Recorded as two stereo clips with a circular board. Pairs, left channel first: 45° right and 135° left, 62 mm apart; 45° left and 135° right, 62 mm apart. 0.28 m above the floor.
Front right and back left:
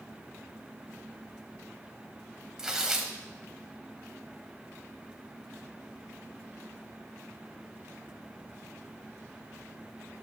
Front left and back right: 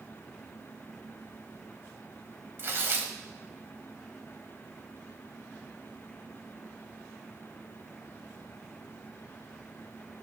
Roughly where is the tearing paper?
Behind right.